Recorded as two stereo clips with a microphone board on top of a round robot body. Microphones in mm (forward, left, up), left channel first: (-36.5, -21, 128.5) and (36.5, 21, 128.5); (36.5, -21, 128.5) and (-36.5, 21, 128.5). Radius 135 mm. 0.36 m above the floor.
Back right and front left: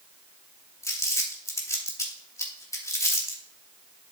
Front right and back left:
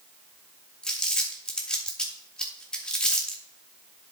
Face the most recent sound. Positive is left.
turn(degrees=-110)